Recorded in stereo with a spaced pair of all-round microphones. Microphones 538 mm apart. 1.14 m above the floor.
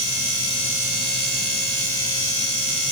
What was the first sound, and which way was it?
Only background noise.